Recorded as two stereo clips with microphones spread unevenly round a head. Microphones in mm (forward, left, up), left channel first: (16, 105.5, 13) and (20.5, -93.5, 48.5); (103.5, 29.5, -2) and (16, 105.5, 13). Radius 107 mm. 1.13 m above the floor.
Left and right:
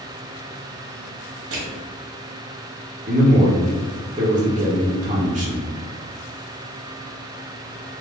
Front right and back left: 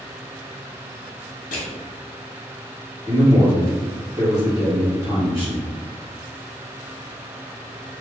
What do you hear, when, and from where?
1.5 s crushing: 70° right, 1.4 m
3.1 s a man speaking: 145° right, 1.0 m